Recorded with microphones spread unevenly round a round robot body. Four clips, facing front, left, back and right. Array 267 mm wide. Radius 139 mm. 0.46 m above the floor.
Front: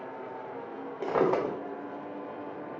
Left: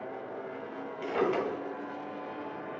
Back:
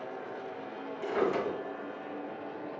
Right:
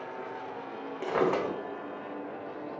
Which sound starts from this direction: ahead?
A drawer, at 1.0 s.